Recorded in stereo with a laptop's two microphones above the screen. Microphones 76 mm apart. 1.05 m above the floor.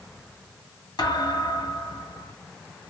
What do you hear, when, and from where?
1.0 s a thud: 75° left (ahead or behind), 2.5 m